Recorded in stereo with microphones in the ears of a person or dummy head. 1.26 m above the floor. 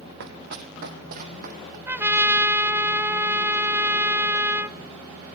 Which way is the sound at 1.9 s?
15° right (ahead or behind).